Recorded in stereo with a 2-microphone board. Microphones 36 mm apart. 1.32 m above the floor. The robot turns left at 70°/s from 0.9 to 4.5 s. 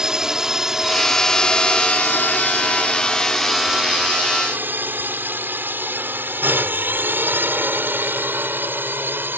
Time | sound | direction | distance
0.0 | a drone | 20° right (ahead or behind) | ?